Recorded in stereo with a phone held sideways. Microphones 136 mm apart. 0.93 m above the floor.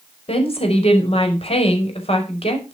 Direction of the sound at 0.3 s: 45° left (ahead or behind).